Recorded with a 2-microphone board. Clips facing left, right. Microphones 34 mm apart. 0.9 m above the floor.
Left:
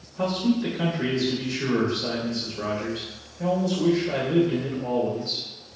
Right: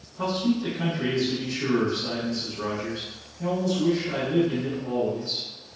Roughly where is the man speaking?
Left.